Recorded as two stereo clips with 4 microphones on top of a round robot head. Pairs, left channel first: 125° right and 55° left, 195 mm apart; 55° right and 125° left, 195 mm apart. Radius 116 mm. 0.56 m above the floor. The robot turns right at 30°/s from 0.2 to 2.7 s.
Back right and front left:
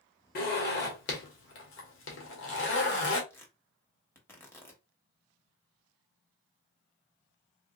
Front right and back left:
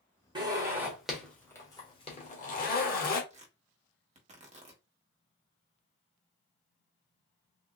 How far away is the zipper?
About 1.3 m.